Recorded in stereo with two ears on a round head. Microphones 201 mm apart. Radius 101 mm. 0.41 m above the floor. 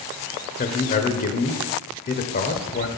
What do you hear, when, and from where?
0.6 s a man speaking: 40° left (ahead or behind), 1.2 m